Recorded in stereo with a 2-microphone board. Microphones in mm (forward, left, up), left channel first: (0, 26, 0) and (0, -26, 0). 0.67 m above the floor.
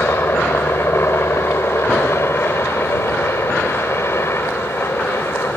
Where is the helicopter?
55° left (ahead or behind).